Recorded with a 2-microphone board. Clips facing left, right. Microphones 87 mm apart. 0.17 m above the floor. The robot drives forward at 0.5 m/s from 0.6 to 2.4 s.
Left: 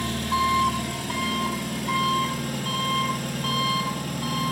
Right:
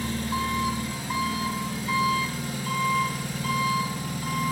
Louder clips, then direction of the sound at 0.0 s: Left 4 dB; 70° left (ahead or behind).